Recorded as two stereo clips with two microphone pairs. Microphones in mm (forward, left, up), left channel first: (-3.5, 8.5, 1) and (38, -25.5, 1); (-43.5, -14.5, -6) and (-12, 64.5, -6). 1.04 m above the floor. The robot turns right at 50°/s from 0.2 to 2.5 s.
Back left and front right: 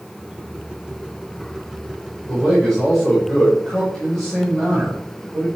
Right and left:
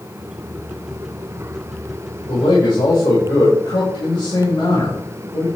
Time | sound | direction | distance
2.3 | a man speaking | 145° right | 5 m